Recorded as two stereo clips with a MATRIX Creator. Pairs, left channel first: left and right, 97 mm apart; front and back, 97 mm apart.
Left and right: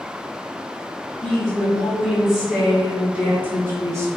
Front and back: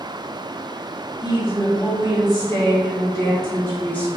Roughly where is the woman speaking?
Ahead.